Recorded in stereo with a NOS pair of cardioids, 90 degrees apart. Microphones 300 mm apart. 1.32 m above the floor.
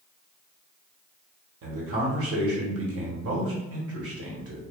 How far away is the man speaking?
About 1.1 m.